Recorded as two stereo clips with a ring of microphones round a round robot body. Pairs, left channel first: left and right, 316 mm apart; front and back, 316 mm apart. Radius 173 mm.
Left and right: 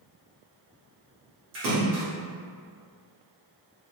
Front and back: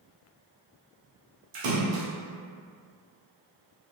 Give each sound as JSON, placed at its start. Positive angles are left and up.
{"t": 1.5, "sound": "a splash", "azimuth_deg": -150, "distance_m": 0.7}